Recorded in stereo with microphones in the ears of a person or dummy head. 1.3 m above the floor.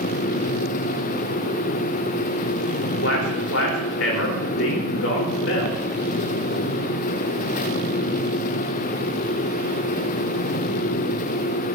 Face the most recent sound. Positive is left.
turn(degrees=80)